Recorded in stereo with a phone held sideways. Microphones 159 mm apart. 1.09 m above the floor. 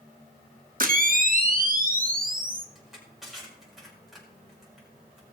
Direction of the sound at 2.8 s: Centre (ahead or behind).